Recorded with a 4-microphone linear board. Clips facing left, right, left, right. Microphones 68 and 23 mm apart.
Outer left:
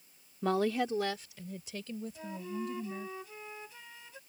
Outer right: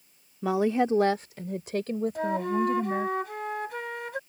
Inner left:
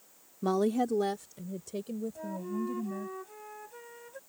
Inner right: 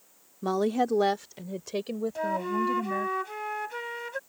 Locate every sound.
0.4 s a woman speaking: 5° right (ahead or behind); by 3.1 s 70° right (ahead or behind)
2.1 s a flute: 70° right (ahead or behind)